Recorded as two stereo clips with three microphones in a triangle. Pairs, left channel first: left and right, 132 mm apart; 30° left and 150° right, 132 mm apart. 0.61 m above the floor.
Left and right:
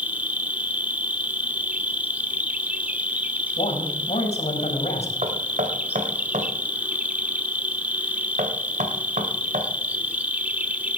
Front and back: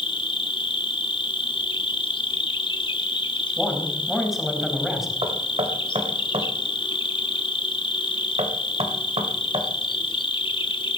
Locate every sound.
0.0 s an insect: 15° right, 1.2 m
3.6 s a man speaking: 125° left, 4 m
5.2 s knocking: 110° right, 2 m